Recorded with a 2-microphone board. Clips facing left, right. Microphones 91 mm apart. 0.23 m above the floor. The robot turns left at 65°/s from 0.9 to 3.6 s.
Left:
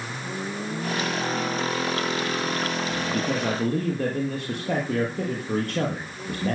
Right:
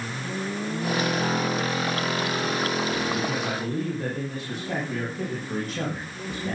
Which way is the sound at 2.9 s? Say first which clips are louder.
Even; 110° left.